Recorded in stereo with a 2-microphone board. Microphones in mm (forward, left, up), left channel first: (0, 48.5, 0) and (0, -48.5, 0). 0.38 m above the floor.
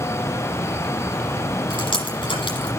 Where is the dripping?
55° left (ahead or behind), 8 m.